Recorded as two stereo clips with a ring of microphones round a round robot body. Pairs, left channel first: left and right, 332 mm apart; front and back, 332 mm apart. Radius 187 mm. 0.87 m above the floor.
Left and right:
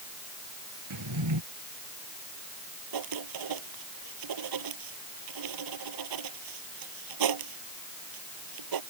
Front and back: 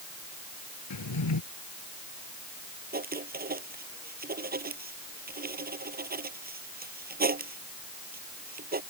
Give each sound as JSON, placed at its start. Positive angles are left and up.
{"t": 0.9, "sound": "a drawer", "azimuth_deg": -40}
{"t": 2.9, "sound": "writing", "azimuth_deg": -115}